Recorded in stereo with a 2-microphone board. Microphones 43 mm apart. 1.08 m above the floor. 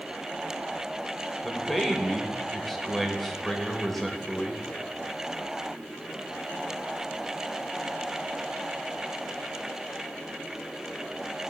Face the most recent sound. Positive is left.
turn(degrees=5)  # may be behind; listen again after turning